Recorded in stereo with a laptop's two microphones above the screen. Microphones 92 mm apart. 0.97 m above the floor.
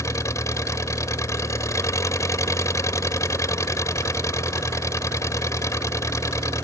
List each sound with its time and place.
0.0 s an engine running: 35° left (ahead or behind)